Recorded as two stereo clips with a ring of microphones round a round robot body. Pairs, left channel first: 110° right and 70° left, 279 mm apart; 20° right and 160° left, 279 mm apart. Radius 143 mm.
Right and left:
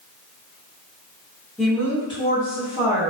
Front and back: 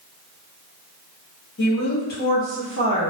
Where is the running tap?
No running tap in this recording.